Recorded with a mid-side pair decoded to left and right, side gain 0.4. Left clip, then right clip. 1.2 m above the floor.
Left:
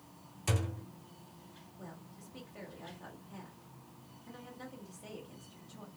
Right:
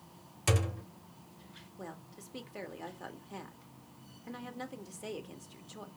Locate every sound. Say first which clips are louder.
0.5 s a thud: right 5 dB; 55° right, 1.6 m
1.8 s a woman speaking: right 6 dB; 65° right, 1.4 m